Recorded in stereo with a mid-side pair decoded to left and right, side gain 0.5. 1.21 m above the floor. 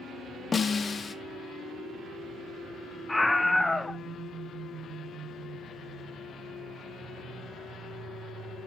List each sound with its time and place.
0.5 s a snare drum: 35° left, 1.3 m
3.1 s a scream: 15° left, 1.3 m